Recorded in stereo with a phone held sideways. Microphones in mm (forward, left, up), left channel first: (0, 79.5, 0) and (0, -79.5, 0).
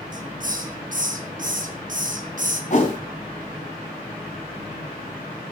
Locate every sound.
0.1 s a hiss: 55° right (ahead or behind), 1.7 m
2.7 s a whoosh: 50° left (ahead or behind), 3 m